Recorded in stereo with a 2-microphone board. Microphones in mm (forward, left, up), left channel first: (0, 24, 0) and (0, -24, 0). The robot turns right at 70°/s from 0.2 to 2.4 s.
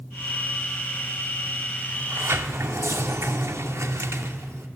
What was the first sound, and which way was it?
A sliding door, 125° right.